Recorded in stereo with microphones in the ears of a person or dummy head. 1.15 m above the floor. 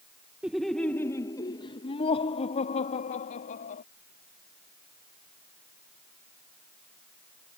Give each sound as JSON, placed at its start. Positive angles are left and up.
{"t": 0.4, "sound": "laughter", "side_deg": -5}